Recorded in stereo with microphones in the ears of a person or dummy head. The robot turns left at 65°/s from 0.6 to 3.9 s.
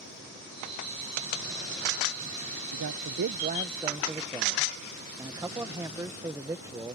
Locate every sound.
2.7 s a man speaking: 90° right; by 6.9 s 165° right